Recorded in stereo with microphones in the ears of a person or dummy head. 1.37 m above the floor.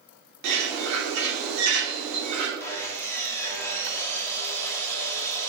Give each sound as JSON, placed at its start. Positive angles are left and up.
{"t": 0.4, "sound": "a bird", "side_deg": -70, "distance_m": 2.5}
{"t": 2.6, "sound": "sawing", "side_deg": 15, "distance_m": 1.6}